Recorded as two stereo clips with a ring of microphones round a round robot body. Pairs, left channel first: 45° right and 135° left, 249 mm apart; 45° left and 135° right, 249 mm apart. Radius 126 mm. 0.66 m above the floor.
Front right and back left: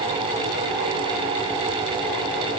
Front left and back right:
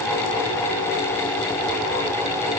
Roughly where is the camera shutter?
No camera shutter in this recording.